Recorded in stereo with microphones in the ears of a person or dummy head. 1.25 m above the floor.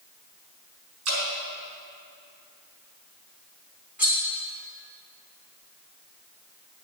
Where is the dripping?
75° right (ahead or behind), 4 m.